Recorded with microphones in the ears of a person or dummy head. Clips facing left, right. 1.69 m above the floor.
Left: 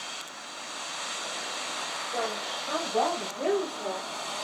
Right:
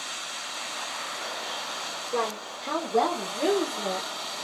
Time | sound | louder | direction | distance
2.1 | a woman speaking | right 3 dB | 90° right | 1.8 m